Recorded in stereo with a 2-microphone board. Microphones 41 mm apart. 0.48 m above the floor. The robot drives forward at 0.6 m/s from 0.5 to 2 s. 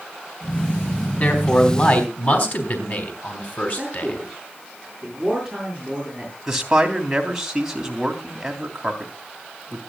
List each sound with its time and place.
1.2 s a man speaking: 40° left (ahead or behind), 4 m; by 4.2 s 45° left (ahead or behind), 3.5 m
3.8 s a man speaking: 10° right (ahead or behind), 8 m
6.5 s a man speaking: 10° right (ahead or behind), 3 m